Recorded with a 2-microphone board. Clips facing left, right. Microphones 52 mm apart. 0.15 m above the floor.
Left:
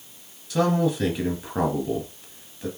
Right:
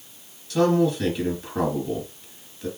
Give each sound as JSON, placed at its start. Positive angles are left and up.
{"t": 0.5, "sound": "a man speaking", "side_deg": 15, "distance_m": 2.0}